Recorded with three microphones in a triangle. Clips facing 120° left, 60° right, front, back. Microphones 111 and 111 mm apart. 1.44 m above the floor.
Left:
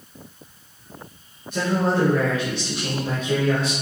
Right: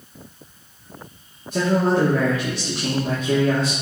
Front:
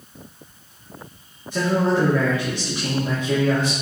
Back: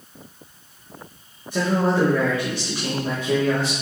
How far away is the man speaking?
About 2 m.